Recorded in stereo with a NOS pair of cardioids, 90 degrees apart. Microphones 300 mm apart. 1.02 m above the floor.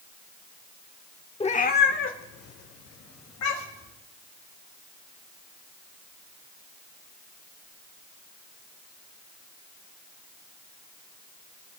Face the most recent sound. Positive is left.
turn(degrees=65)